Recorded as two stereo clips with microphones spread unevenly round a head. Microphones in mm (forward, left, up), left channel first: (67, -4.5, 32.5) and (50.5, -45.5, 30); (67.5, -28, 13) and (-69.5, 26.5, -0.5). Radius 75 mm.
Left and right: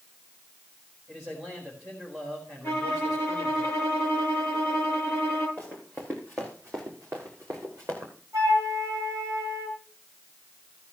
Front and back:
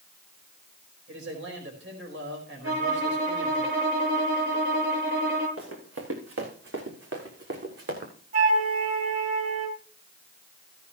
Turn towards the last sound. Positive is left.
turn(degrees=-160)